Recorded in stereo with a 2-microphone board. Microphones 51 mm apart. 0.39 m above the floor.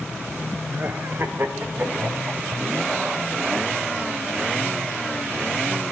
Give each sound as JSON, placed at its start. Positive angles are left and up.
{"t": 0.7, "sound": "laughter", "side_deg": -40, "distance_m": 1.4}